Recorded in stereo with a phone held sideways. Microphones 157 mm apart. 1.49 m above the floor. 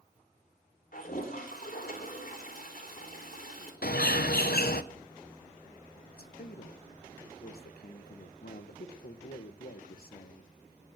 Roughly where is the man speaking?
Left.